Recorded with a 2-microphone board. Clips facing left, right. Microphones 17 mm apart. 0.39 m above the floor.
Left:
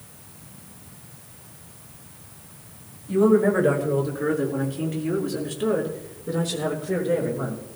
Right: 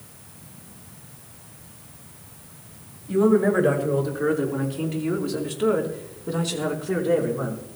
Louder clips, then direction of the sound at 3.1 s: Left 1 dB; 15° right (ahead or behind).